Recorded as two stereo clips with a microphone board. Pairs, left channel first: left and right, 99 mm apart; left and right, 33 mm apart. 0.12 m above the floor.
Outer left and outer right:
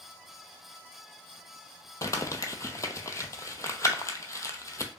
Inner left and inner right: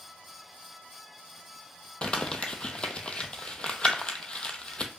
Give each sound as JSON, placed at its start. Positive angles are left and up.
{"t": 2.0, "sound": "crumpling", "side_deg": 35, "distance_m": 0.6}